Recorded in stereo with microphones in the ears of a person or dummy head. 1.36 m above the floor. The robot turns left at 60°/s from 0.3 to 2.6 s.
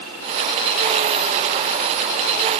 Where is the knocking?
I don't hear knocking.